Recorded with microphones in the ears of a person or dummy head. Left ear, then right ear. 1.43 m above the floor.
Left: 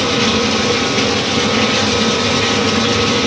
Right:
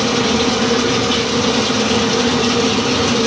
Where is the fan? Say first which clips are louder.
Left 1 dB; 60° right (ahead or behind), 4 m.